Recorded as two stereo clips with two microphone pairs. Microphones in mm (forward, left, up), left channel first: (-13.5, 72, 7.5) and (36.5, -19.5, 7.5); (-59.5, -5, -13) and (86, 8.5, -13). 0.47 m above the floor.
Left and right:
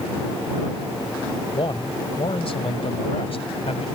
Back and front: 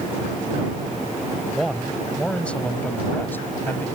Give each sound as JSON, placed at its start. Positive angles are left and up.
{"t": 1.5, "sound": "a man speaking", "azimuth_deg": 95}